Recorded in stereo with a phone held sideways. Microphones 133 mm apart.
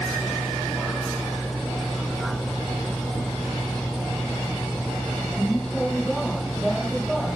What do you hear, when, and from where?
0.0 s a vehicle: centre (ahead or behind)